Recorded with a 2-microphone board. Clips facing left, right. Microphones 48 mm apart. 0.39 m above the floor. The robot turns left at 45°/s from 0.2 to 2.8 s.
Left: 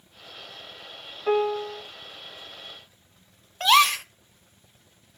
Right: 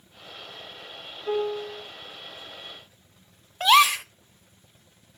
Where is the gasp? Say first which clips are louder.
Right 1 dB; 5° right (ahead or behind), 0.6 m.